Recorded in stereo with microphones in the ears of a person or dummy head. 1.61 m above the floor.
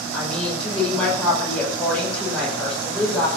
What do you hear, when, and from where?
0.1 s a woman speaking: 10° left (ahead or behind), 6.5 m